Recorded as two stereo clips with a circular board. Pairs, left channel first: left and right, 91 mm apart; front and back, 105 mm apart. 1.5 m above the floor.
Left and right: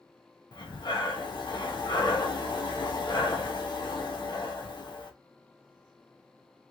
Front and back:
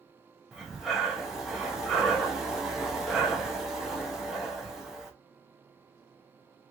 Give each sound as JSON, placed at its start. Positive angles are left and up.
{"t": 0.5, "sound": "breathing", "azimuth_deg": 95, "distance_m": 0.8}